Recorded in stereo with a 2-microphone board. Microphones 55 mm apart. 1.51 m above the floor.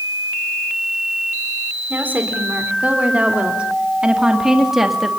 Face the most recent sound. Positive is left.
turn(degrees=-5)  # may be behind; listen again after turning